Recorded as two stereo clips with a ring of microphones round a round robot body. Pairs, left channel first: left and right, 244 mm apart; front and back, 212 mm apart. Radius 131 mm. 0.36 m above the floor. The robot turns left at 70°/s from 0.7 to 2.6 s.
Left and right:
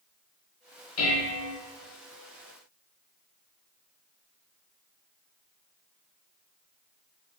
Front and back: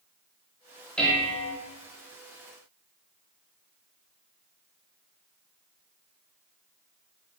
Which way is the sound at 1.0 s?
85° left.